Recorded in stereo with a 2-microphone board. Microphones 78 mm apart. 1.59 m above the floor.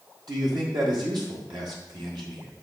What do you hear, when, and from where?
0.3 s a man speaking: 70° right (ahead or behind), 1.6 m